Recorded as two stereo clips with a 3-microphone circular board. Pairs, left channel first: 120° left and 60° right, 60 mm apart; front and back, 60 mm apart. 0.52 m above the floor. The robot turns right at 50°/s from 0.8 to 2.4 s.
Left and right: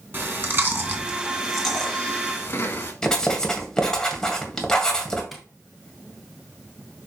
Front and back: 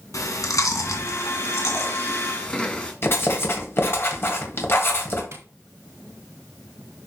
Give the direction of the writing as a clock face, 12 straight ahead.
11 o'clock.